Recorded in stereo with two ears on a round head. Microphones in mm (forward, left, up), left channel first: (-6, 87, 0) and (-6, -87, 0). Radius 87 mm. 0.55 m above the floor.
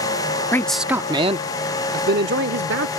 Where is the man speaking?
15° left (ahead or behind); by 2.9 s 65° right (ahead or behind).